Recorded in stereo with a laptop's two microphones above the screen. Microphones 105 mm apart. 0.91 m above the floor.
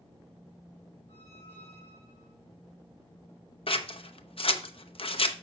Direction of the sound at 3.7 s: 60° left (ahead or behind).